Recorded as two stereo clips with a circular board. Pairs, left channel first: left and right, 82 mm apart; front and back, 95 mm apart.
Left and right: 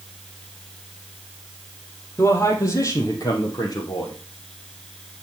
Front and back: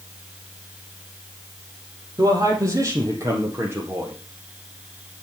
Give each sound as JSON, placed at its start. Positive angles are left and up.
{"t": 2.2, "sound": "a man speaking", "azimuth_deg": 135, "distance_m": 3.5}